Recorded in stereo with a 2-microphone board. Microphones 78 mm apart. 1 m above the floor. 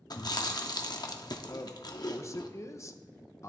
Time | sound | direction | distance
0.1 | chewing | 60° left (ahead or behind) | 0.8 m
1.5 | a man speaking | 35° left (ahead or behind) | 0.7 m